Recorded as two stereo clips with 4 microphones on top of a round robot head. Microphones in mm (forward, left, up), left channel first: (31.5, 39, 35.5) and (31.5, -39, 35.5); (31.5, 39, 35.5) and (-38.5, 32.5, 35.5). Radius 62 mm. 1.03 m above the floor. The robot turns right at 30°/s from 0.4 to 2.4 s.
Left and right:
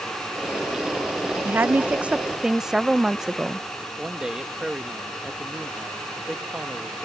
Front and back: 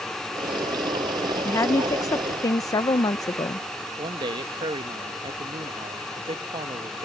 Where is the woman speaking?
35° right; by 3.7 s 10° right.